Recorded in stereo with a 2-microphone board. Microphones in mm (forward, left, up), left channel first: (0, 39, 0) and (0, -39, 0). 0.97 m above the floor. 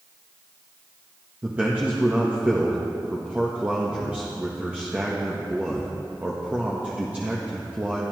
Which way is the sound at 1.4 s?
20° right (ahead or behind).